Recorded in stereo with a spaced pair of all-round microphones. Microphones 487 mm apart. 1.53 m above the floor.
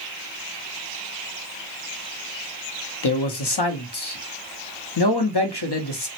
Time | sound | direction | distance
3.0 | a man speaking | 55° left (ahead or behind) | 0.6 m